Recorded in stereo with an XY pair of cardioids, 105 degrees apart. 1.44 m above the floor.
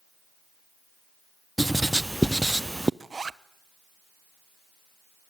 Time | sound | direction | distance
1.6 | writing | 10° right | 0.5 m
3.0 | a zipper | 25° right | 0.8 m